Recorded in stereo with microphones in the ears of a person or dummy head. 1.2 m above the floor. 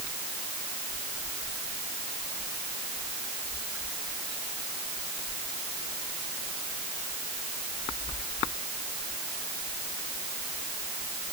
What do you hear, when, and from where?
Only background noise.